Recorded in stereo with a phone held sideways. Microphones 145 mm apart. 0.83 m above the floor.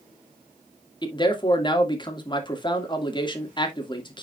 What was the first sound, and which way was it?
A man speaking, 30° left (ahead or behind).